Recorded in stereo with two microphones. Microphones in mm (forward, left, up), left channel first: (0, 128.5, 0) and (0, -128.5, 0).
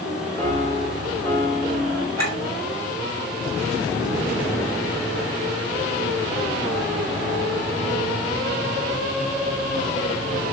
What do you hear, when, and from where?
0.4 s a piano: 30° right (ahead or behind), 6 m
2.2 s a clink: 75° right (ahead or behind), 6 m